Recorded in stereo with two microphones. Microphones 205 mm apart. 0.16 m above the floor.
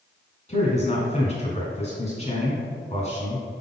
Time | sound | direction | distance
0.5 | a man speaking | 35° left (ahead or behind) | 1.3 m